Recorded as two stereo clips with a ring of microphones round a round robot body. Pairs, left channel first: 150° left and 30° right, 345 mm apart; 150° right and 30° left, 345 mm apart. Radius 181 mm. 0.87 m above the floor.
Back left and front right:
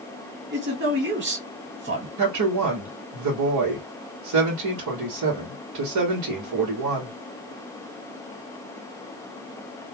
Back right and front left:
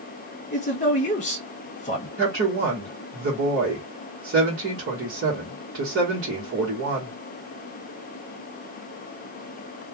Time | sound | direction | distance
0.5 | a man speaking | 85° right | 1.5 m
2.2 | a woman speaking | 15° right | 1.2 m